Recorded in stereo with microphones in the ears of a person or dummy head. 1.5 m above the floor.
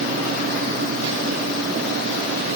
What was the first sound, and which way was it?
Only background noise.